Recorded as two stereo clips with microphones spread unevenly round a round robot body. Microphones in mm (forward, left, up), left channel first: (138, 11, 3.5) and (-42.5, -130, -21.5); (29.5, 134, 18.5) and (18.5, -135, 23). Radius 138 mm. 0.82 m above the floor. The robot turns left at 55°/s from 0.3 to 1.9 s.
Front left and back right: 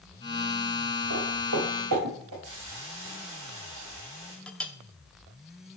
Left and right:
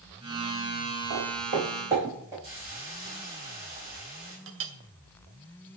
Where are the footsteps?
125° right, 3 m; by 2.3 s 175° right, 4.5 m.